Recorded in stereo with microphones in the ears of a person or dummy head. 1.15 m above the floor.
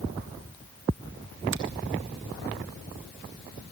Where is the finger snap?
60° right (ahead or behind), 1.4 m.